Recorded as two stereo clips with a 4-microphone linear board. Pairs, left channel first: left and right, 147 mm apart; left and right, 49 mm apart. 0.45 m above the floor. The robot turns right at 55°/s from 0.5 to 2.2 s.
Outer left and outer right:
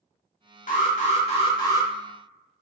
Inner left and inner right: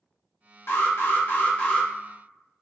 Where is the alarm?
95° left, 0.9 m; by 1.9 s 165° left, 0.9 m.